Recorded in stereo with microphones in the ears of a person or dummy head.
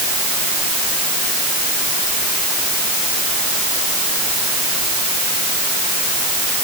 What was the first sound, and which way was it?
Only background noise.